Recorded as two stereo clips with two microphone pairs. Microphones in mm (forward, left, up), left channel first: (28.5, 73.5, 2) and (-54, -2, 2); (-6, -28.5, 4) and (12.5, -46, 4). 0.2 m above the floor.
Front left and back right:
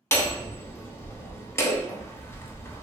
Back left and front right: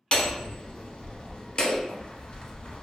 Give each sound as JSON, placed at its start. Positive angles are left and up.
{"t": 0.1, "sound": "hammering", "azimuth_deg": 100, "distance_m": 0.6}